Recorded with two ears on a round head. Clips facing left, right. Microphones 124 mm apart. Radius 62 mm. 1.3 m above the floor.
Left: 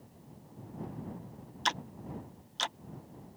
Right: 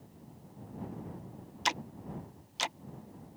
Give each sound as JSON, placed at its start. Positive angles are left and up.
{"t": 1.6, "sound": "ticking", "side_deg": -10}